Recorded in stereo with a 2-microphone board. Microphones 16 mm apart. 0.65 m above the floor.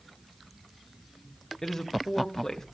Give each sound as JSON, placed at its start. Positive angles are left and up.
{"t": 1.6, "sound": "a woman speaking", "side_deg": 30, "distance_m": 1.2}